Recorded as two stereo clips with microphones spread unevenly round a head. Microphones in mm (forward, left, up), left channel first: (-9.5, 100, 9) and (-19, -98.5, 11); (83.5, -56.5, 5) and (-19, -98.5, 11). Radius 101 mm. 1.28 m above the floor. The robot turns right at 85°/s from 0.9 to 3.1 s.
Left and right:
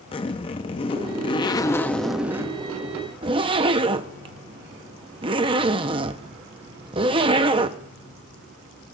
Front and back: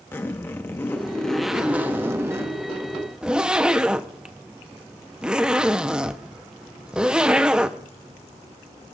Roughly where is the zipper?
Left.